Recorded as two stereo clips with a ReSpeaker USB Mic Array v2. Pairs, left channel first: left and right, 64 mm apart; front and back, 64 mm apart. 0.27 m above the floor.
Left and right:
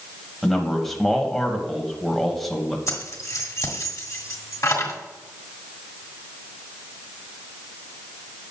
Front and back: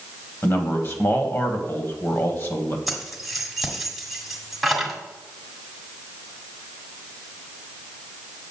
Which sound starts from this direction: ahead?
A man speaking, at 0.4 s.